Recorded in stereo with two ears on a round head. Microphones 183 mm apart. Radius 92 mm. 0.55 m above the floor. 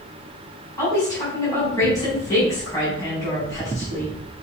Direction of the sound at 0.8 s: 15° left (ahead or behind).